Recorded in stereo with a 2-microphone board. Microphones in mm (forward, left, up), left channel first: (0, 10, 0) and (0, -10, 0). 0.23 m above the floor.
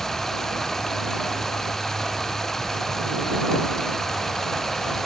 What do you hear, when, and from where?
0.0 s running water: 20° left (ahead or behind)